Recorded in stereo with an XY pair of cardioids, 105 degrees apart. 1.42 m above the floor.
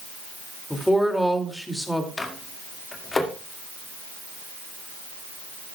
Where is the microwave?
25° left, 1.9 m.